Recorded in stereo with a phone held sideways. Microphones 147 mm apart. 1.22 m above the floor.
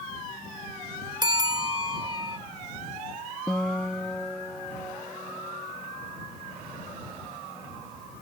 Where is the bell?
30° right (ahead or behind).